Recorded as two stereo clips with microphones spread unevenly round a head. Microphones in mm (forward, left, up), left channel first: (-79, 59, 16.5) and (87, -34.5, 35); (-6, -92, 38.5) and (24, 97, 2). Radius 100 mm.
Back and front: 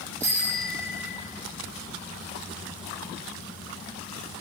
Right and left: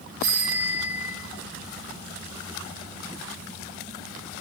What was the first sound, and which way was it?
A bicycle bell, 70° left.